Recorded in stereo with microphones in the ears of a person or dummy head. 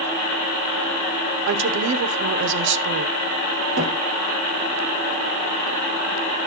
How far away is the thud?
About 8.5 m.